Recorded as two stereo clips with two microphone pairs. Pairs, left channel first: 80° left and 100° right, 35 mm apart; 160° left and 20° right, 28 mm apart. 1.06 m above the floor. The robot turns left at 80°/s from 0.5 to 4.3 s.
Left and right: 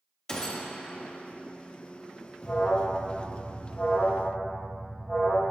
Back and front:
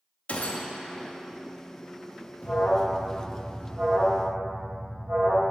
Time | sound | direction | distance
0.3 | a gunshot | 145° left | 0.6 m
2.4 | an alarm | 125° left | 1.3 m